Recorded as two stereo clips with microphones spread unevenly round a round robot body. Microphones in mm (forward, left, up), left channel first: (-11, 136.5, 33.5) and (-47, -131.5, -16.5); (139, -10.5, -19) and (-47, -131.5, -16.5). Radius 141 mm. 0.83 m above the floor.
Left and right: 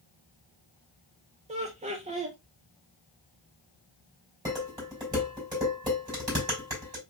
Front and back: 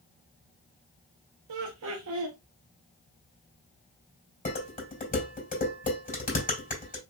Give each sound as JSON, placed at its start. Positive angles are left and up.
{"t": 1.5, "sound": "laughter", "azimuth_deg": -155, "distance_m": 0.8}
{"t": 4.5, "sound": "dishes clattering", "azimuth_deg": -20, "distance_m": 3.5}